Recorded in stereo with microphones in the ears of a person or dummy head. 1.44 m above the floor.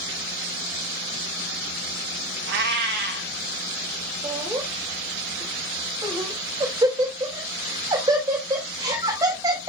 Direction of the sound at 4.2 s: 20° right (ahead or behind).